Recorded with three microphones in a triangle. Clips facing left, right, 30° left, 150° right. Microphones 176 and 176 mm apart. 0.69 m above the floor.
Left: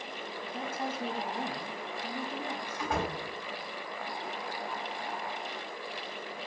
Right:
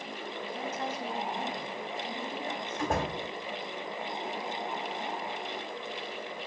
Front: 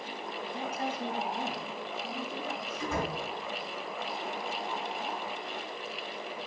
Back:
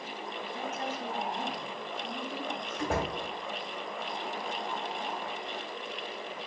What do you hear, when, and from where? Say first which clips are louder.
0.5 s a woman speaking: left 1 dB, front 2 dB; 50° left, 1.4 m; by 2.9 s 160° left, 1.4 m
2.8 s a door slam: right 2 dB, back 2 dB; 135° right, 2.5 m